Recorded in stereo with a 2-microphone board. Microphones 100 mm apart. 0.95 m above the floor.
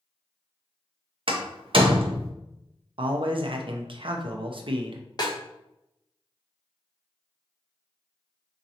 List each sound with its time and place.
1.3 s a door slam: 60° right (ahead or behind), 0.7 m
3.0 s a man speaking: 60° right (ahead or behind), 0.6 m
5.2 s a snare drum: 45° left (ahead or behind), 0.8 m